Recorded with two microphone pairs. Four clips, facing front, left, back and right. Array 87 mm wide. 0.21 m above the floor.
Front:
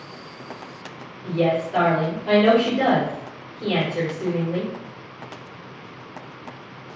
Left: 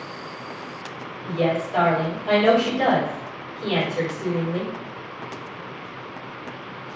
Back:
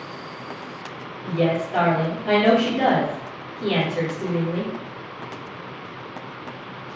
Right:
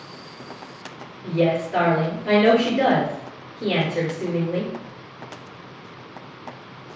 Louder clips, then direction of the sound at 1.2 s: Right 2 dB, front 1 dB; 90° right.